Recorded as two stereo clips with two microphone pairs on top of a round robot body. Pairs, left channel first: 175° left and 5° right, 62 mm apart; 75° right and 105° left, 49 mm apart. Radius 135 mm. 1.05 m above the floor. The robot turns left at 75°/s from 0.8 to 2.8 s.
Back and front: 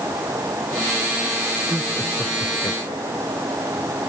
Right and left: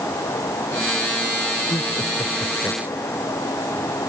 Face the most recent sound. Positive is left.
turn(degrees=-145)